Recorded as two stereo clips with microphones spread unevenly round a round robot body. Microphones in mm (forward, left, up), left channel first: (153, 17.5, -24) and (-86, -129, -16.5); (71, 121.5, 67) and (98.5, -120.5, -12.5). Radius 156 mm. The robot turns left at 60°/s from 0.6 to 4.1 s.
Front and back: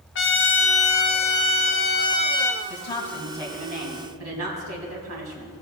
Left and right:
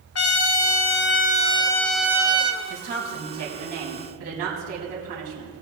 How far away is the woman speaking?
About 4 m.